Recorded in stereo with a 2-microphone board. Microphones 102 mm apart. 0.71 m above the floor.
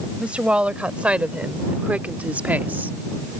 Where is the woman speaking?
10° right (ahead or behind); by 2.9 s 15° right (ahead or behind).